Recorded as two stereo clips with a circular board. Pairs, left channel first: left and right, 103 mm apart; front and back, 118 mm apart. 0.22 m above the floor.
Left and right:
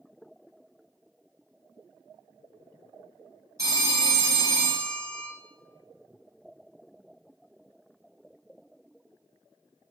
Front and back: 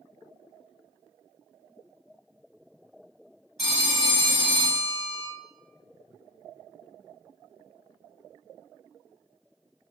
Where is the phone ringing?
85° right, 1.1 m.